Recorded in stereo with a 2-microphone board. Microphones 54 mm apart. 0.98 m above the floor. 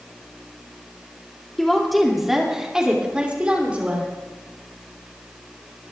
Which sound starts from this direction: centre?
A woman speaking, at 1.6 s.